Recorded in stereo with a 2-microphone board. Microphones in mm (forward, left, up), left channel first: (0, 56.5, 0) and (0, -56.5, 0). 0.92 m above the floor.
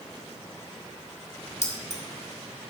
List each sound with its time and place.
1.6 s keys jangling: 80° left, 1.6 m